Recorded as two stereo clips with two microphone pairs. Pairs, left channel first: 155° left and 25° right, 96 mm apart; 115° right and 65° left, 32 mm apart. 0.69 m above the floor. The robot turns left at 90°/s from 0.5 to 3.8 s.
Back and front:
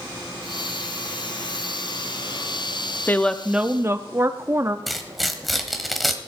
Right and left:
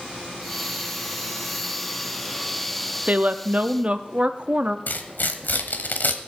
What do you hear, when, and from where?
3.1 s a woman speaking: 95° left, 0.7 m; by 4.8 s 30° left, 0.7 m
4.9 s tearing paper: 115° right, 1.1 m